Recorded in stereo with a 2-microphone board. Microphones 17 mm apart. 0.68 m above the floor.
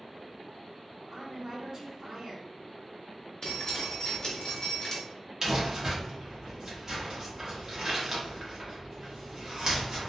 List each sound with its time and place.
1.1 s a woman speaking: 40° right (ahead or behind), 1.2 m
3.4 s dripping: 40° left (ahead or behind), 1.1 m
5.4 s crumpling: 35° right (ahead or behind), 1.0 m